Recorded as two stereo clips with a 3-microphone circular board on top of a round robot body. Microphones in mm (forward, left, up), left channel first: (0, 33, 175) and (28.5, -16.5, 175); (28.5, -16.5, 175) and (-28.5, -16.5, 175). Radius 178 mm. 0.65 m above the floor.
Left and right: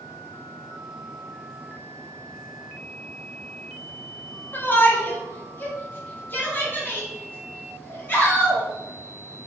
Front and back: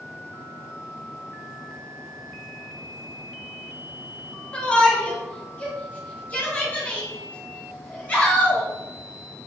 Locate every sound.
4.5 s a shout: 65° left, 2.0 m